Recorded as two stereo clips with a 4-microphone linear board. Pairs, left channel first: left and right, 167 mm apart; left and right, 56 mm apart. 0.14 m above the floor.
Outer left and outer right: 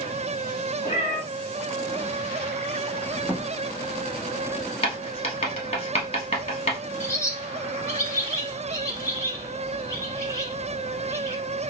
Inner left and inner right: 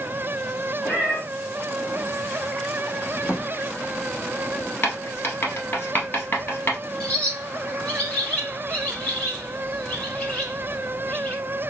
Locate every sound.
0.8 s a cat meowing: 30° left (ahead or behind), 2 m
3.2 s a drawer: 10° right (ahead or behind), 1.1 m
4.8 s writing: 40° left (ahead or behind), 1.3 m
7.0 s a bird: 20° left (ahead or behind), 1.2 m